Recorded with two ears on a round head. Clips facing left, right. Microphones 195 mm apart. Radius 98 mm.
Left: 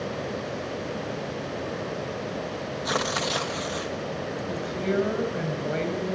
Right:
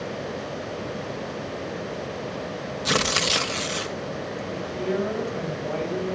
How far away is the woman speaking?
About 5 m.